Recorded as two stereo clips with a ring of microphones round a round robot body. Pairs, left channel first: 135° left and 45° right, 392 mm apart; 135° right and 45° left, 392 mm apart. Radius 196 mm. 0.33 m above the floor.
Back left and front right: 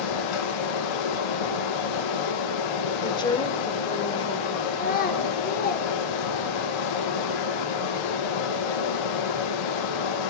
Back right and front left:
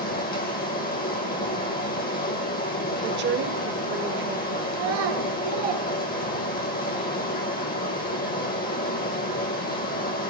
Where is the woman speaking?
70° left, 1.1 m.